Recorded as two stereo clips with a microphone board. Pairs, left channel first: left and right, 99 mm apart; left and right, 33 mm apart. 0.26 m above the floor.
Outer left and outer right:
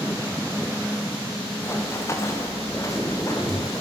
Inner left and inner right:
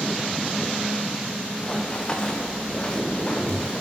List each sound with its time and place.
1.6 s running footsteps: 25° left (ahead or behind), 4 m; by 3.8 s 35° left (ahead or behind), 6.5 m